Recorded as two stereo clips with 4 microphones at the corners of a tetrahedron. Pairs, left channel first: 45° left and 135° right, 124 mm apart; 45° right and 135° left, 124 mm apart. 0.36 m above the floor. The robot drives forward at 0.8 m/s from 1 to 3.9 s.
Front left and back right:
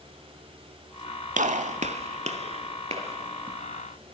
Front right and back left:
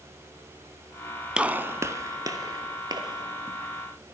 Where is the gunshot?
140° right, 0.5 m; by 3.6 s 170° right, 2 m.